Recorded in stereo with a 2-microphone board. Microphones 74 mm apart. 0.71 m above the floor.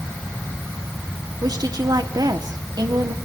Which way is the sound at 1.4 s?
60° right (ahead or behind).